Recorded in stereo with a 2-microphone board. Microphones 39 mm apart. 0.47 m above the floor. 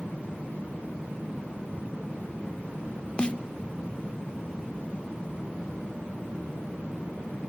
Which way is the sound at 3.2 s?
20° left (ahead or behind).